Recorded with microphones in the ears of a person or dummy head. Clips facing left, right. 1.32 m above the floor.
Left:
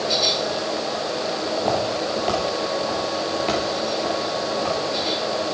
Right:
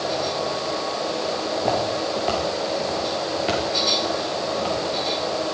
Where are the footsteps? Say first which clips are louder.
Even; centre (ahead or behind), 4.5 m; by 5.3 s 15° right (ahead or behind), 7.5 m.